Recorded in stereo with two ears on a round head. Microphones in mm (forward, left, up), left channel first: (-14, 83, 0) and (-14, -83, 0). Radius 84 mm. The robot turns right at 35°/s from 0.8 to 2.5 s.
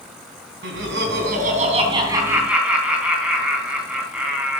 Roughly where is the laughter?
Ahead right.